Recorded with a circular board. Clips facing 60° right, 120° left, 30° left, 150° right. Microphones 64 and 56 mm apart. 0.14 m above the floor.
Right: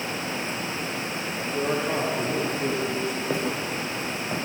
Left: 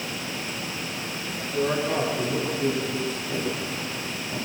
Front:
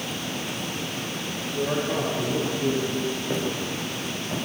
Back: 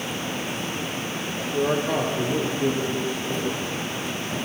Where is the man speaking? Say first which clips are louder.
Left 2 dB, back 3 dB; 145° right, 4.5 m.